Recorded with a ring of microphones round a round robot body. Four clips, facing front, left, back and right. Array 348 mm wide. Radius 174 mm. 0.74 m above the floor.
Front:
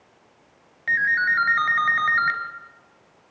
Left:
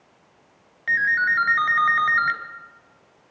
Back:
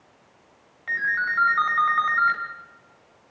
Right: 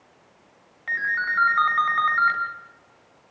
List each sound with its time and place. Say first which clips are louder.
0.9 s a ringtone: left 5 dB, front 4 dB; 40° left, 3.5 m